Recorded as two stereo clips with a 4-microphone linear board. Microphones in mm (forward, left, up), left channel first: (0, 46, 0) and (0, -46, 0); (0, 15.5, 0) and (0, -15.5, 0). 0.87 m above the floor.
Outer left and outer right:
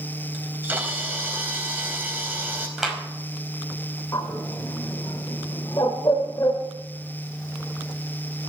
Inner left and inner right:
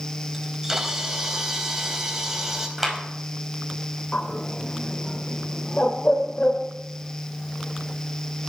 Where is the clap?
5° right (ahead or behind), 5 m.